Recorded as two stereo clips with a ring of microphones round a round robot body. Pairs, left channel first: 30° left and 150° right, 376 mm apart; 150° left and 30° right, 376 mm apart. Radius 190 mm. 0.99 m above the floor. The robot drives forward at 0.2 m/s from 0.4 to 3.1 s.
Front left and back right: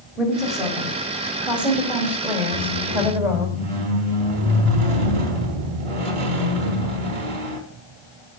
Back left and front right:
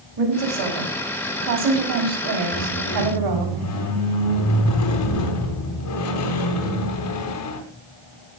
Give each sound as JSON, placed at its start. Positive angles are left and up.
{"t": 0.2, "sound": "a woman speaking", "azimuth_deg": -60, "distance_m": 5.5}
{"t": 2.5, "sound": "a squeak", "azimuth_deg": -160, "distance_m": 4.0}